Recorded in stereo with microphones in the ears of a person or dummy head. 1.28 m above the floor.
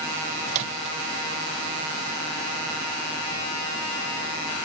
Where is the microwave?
40° right (ahead or behind).